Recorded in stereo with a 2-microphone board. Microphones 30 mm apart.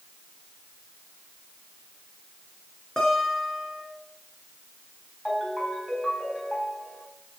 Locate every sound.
3.0 s a guitar: 20° left (ahead or behind), 4 m
5.2 s a ringtone: 10° left (ahead or behind), 4 m